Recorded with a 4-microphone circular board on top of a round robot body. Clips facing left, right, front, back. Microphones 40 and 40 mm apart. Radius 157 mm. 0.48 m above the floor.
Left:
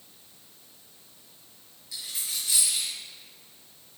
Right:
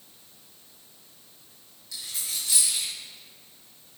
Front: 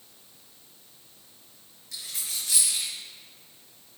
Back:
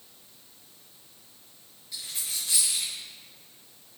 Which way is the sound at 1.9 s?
10° left.